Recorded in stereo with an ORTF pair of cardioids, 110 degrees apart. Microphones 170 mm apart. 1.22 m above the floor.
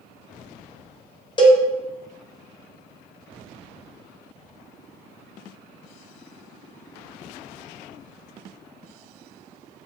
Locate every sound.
1.4 s a cowbell: 25° left, 0.8 m